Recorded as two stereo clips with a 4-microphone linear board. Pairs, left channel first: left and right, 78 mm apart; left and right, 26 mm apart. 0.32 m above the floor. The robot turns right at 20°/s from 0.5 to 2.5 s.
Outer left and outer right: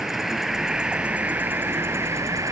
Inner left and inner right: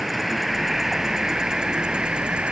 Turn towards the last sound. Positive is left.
turn(degrees=-135)